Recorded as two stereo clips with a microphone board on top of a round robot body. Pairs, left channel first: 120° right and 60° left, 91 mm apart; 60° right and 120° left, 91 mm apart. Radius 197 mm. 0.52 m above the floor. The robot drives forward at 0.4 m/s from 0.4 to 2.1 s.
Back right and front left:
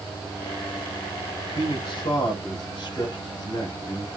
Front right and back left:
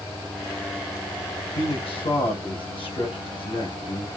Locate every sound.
1.4 s a man speaking: 80° right, 3.5 m; by 4.1 s 85° right, 3 m